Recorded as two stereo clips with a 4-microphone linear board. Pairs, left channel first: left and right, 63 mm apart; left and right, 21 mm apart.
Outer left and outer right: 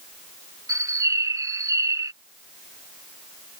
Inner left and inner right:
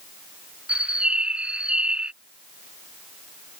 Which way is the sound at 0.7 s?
60° right (ahead or behind).